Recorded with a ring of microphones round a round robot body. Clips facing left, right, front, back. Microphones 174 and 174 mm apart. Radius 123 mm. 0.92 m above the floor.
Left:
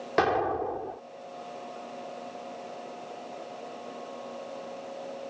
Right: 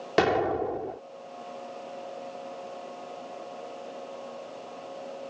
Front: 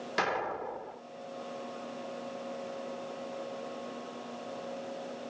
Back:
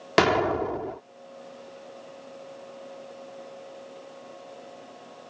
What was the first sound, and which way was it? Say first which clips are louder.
An explosion: right 2 dB, back 12 dB; 160° right.